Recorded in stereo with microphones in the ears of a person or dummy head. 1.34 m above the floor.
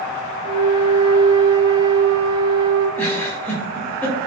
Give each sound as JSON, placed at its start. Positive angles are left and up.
{"t": 0.4, "sound": "a flute", "side_deg": -30, "distance_m": 0.7}
{"t": 3.0, "sound": "a giggle", "side_deg": 15, "distance_m": 0.5}